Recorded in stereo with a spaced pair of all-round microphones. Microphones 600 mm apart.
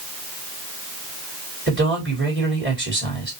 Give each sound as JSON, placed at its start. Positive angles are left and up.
{"t": 1.7, "sound": "a man speaking", "side_deg": -15, "distance_m": 2.5}